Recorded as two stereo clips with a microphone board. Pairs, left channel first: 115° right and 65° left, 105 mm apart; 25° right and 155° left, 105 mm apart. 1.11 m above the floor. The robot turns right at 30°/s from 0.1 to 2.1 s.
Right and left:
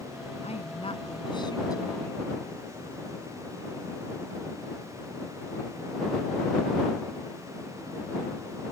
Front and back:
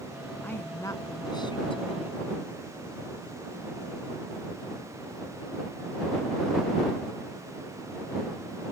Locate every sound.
0.4 s a woman speaking: 95° right; by 2.2 s 45° right